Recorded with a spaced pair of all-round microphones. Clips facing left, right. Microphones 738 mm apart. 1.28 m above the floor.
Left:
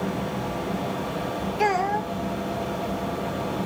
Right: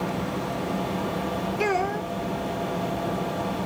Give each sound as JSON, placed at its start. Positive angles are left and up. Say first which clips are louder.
{"t": 1.6, "sound": "a child speaking", "louder": "even", "side_deg": 30}